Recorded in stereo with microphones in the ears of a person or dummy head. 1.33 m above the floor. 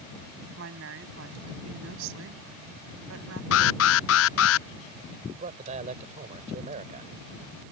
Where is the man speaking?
45° right (ahead or behind).